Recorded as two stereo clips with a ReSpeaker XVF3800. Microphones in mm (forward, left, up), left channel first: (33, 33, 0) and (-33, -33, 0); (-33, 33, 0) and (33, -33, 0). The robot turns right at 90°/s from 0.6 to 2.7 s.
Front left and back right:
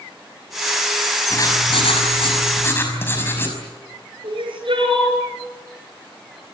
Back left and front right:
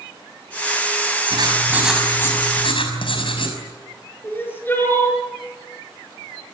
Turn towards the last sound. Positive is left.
turn(degrees=-160)